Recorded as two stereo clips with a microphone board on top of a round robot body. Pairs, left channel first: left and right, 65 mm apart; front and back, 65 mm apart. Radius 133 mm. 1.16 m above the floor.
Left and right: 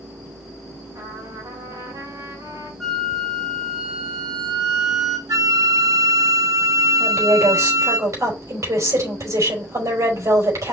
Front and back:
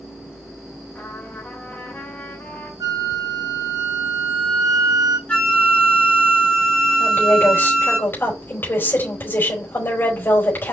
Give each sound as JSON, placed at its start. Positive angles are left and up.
{"t": 0.9, "sound": "a trumpet", "azimuth_deg": -65, "distance_m": 3.0}
{"t": 2.8, "sound": "a flute", "azimuth_deg": 175, "distance_m": 1.6}
{"t": 5.3, "sound": "a flute", "azimuth_deg": -70, "distance_m": 3.5}
{"t": 7.0, "sound": "a woman speaking", "azimuth_deg": -55, "distance_m": 5.0}